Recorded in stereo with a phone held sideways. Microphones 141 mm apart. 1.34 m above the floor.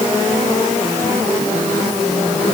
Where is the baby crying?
I don't hear a baby crying.